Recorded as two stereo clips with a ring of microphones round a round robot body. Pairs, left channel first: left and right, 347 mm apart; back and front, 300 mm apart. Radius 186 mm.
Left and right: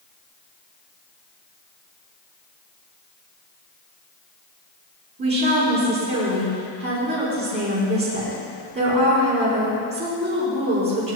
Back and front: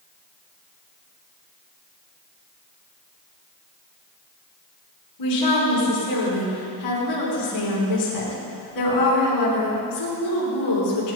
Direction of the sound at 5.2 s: 150° right.